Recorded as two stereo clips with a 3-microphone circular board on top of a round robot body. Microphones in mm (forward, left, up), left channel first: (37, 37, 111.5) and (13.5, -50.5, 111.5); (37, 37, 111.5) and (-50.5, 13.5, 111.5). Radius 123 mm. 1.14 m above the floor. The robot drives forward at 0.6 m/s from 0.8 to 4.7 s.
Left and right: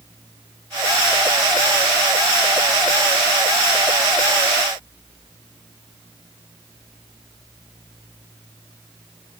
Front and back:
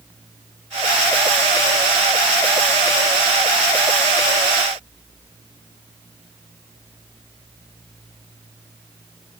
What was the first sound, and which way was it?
Only background noise.